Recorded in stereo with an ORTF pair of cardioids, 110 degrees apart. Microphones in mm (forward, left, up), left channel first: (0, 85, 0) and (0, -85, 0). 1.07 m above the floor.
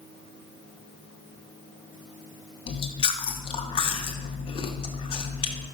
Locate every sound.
2.7 s chewing: 30° left, 0.7 m